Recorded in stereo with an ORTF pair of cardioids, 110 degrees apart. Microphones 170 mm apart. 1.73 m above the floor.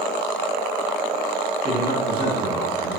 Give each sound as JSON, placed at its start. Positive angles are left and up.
{"t": 1.6, "sound": "a man speaking", "azimuth_deg": -70, "distance_m": 3.5}